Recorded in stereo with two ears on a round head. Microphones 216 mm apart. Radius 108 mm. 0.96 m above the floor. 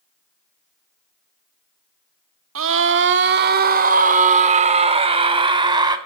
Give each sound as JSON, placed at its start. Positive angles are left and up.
{"t": 2.5, "sound": "a scream", "side_deg": -60, "distance_m": 2.5}